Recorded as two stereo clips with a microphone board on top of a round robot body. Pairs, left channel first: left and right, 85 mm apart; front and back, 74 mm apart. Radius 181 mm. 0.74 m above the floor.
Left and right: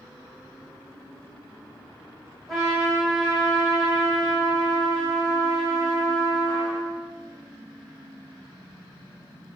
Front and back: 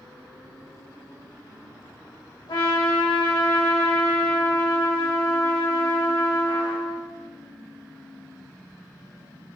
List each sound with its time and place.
2.5 s a trumpet: 5° left, 2.5 m